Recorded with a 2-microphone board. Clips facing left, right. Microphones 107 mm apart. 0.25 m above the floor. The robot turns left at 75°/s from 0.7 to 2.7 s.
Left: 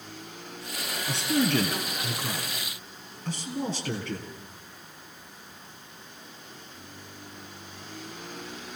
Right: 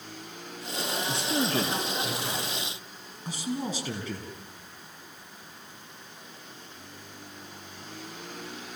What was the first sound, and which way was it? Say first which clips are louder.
A man speaking: left 5 dB; 105° left.